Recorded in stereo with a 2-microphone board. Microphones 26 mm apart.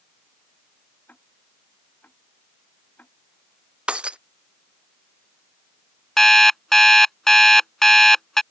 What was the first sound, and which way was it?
Ticking, 70° left (ahead or behind).